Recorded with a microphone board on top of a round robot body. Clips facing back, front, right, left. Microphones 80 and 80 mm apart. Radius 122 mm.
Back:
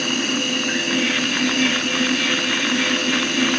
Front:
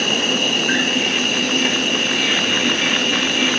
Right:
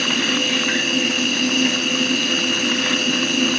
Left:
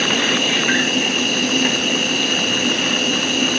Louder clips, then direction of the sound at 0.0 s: Front 2 dB, left 2 dB; 40° left.